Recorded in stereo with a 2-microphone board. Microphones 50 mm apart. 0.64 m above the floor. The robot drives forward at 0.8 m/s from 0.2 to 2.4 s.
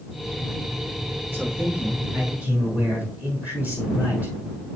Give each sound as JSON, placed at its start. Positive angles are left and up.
{"t": 1.3, "sound": "a man speaking", "side_deg": -40, "distance_m": 5.0}